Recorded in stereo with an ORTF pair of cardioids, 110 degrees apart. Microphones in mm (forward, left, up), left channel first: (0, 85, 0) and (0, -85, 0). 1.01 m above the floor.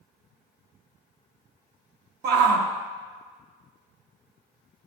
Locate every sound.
2.2 s a shout: 70° right, 0.8 m